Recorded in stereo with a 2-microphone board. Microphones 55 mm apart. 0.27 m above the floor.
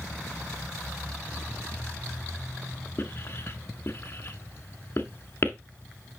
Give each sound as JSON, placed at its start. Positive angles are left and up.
{"t": 3.0, "sound": "writing", "side_deg": 45, "distance_m": 1.3}